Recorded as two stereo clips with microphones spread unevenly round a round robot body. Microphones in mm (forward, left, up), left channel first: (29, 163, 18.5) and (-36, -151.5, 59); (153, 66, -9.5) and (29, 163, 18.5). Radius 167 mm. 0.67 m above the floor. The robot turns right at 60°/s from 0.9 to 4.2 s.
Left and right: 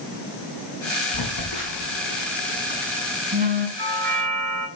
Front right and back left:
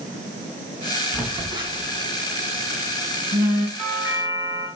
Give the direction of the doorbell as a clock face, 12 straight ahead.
5 o'clock.